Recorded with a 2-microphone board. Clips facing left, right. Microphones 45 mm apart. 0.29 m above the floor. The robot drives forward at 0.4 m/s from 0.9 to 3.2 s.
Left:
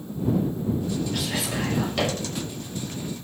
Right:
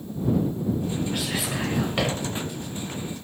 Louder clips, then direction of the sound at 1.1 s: Even; 25° right (ahead or behind).